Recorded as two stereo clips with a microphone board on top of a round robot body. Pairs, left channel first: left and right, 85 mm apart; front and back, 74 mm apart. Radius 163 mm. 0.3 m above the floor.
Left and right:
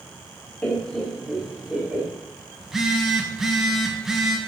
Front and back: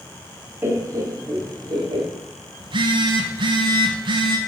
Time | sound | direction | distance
0.6 | laughter | 155° left | 1.5 m
2.6 | a phone buzzing | straight behind | 0.7 m